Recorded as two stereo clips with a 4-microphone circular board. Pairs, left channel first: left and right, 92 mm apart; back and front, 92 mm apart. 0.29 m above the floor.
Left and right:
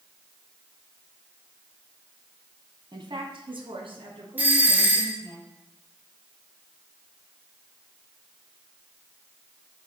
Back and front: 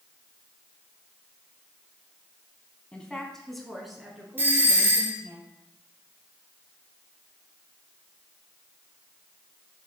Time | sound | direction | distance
2.9 | a woman speaking | 105° right | 1.8 m
4.4 | a doorbell | 40° right | 1.8 m